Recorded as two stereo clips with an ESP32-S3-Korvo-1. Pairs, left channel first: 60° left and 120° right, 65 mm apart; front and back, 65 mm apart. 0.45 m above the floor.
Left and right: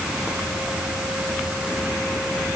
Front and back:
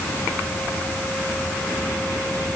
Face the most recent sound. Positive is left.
No sound to turn to.